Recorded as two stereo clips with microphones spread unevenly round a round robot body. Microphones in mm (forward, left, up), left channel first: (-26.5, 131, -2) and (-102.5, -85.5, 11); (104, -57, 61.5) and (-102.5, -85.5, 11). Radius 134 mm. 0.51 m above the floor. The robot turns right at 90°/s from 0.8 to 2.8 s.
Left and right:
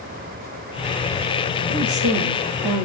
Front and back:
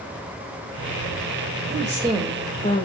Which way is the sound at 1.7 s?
140° right.